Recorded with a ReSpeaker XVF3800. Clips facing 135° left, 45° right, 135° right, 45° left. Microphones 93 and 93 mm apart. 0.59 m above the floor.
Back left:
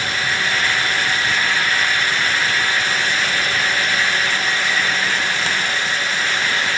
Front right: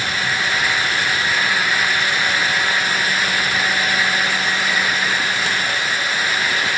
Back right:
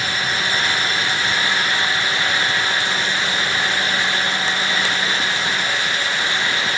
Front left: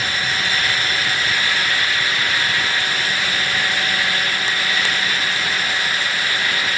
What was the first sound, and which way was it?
Only background noise.